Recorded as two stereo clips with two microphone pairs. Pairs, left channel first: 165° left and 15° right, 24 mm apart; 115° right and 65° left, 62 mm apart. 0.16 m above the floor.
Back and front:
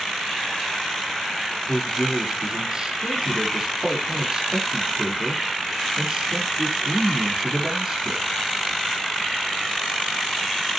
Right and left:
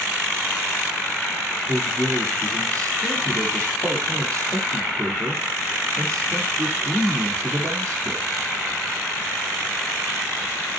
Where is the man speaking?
40° left, 6 m.